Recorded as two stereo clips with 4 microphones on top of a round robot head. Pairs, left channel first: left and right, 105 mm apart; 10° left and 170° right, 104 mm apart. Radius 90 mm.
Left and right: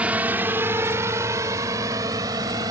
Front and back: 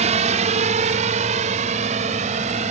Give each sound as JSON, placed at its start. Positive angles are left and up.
{"t": 0.0, "sound": "a drone", "azimuth_deg": -170}